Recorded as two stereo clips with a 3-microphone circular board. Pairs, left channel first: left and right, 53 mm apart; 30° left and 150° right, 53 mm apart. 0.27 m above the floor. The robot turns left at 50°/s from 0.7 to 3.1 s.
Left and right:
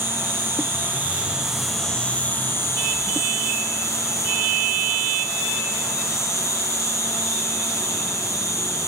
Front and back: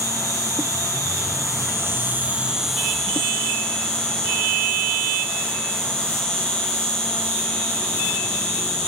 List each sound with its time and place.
0.0 s an insect: 135° right, 7 m; by 8.9 s 105° left, 7 m